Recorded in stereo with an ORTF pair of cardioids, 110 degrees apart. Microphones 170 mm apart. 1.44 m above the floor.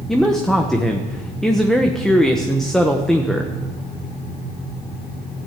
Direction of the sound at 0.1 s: 5° left.